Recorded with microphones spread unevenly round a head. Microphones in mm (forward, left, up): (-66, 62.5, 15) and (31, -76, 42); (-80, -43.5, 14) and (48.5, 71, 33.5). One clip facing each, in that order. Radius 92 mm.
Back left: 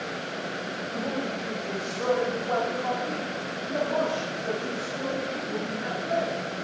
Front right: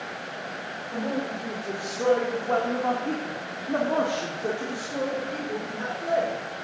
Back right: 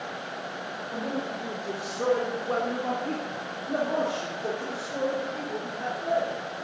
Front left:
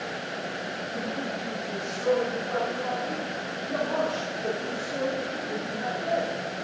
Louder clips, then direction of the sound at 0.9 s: Front right 3 dB, back right 2 dB; 135° right.